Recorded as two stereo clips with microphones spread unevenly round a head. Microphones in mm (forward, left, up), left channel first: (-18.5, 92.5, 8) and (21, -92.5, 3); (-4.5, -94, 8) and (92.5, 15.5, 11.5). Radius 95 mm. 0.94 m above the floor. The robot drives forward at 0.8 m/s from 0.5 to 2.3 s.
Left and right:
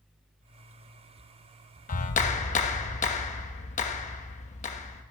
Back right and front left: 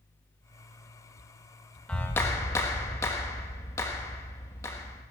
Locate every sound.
1.9 s a clap: 145° left, 1.0 m; by 5.0 s 155° left, 1.3 m